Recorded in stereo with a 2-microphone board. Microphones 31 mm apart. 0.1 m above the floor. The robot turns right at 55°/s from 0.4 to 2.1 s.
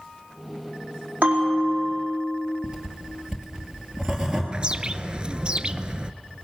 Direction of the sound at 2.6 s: 20° right (ahead or behind).